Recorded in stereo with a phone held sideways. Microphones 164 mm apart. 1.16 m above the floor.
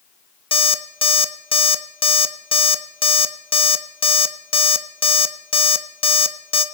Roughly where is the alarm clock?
Left.